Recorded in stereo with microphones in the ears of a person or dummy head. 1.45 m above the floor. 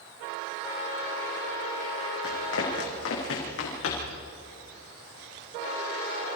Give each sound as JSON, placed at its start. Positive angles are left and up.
{"t": 2.2, "sound": "running footsteps", "side_deg": 70, "distance_m": 4.5}